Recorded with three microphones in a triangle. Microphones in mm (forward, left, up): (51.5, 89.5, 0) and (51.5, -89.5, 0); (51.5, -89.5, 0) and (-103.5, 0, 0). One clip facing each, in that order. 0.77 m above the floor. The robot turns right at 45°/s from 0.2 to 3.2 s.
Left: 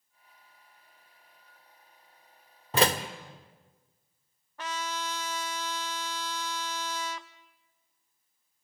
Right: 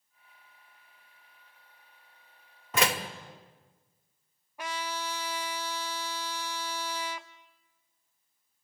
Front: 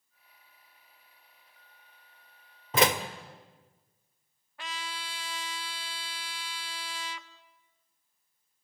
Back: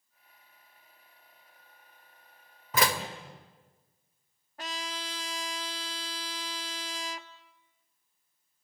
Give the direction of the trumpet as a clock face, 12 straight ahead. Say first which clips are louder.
Even, back 2 dB; 6 o'clock.